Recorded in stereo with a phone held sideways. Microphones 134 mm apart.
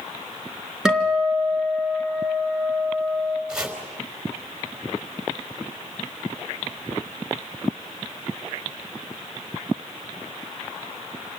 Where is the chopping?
5° right (ahead or behind), 4 m.